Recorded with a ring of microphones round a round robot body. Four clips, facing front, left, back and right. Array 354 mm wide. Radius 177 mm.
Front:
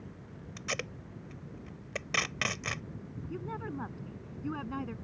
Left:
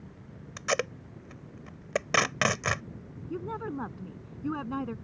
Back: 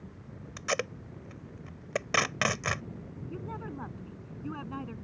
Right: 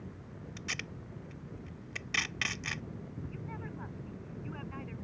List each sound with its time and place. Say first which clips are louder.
0.6 s tape being pulled: left 16 dB, back 7 dB; 110° left
3.3 s a woman speaking: left 9 dB, front 1 dB; 85° left